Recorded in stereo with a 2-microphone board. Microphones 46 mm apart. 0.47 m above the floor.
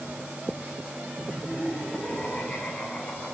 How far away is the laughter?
About 3.5 m.